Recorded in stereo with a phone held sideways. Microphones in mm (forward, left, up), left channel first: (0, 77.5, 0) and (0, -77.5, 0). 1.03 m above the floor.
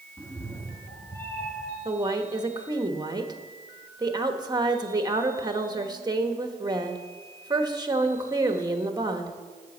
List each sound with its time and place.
0.2 s a cat meowing: 20° left (ahead or behind), 1.3 m; by 1.8 s 10° left (ahead or behind), 3.5 m
1.9 s a woman speaking: 25° right (ahead or behind), 1.1 m